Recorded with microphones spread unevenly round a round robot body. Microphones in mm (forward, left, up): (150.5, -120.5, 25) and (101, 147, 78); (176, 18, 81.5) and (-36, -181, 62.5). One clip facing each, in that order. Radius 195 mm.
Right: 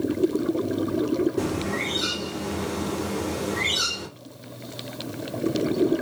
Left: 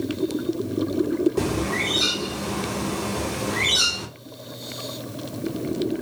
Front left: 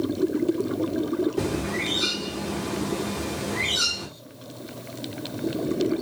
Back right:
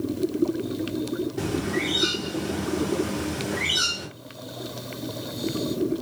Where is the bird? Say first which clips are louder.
Left 2 dB, even; 100° left, 1.1 m.